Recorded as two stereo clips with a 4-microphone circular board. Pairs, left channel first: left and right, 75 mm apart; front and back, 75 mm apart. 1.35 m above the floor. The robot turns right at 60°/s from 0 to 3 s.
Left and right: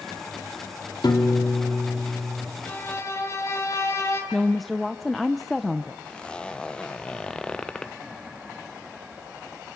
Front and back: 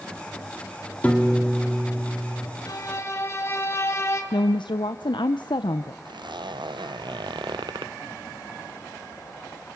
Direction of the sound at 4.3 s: Straight ahead.